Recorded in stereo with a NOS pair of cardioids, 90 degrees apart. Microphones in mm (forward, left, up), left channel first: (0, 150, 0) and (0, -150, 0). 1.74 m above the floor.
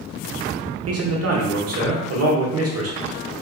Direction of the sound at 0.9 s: 55° right.